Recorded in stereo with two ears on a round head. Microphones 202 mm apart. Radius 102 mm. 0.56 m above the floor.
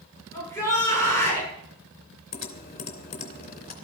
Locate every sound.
0.3 s a shout: 10° left (ahead or behind), 10 m
2.3 s typing on a keyboard: 45° left (ahead or behind), 2.5 m